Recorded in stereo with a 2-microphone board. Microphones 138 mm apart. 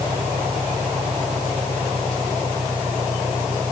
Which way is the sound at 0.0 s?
75° right (ahead or behind).